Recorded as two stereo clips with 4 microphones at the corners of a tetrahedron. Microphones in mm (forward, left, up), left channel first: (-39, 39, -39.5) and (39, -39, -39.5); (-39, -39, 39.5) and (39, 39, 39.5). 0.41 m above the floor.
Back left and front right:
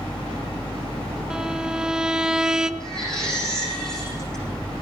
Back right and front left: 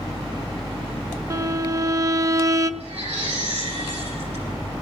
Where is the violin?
30° left, 0.7 m.